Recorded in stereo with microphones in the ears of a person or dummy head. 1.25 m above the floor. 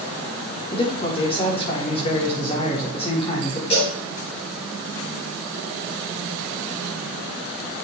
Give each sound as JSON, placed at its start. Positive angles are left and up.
{"t": 0.7, "sound": "a man speaking", "side_deg": 25, "distance_m": 4.5}
{"t": 3.7, "sound": "a cowbell", "side_deg": 30, "distance_m": 5.0}